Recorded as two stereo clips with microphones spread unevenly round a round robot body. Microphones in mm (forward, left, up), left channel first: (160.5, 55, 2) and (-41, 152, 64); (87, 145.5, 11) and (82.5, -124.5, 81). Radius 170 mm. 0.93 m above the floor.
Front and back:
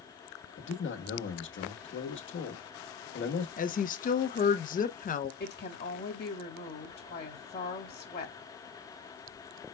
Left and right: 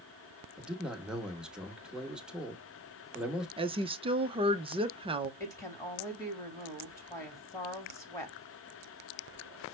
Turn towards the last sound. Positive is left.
turn(degrees=20)